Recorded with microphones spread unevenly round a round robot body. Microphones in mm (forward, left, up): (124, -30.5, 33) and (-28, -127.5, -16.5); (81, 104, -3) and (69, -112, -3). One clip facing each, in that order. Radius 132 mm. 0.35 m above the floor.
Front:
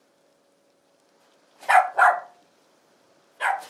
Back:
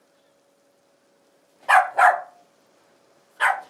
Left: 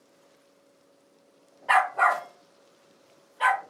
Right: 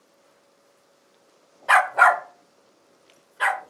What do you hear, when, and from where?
1.7 s a dog barking: 50° right, 0.6 m; by 3.6 s 130° right, 1.3 m